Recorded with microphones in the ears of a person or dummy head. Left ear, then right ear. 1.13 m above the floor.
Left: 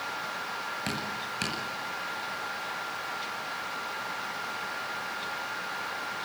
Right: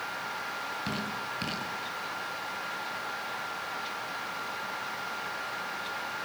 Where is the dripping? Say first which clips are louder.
Left 1 dB; 30° left (ahead or behind), 9 m.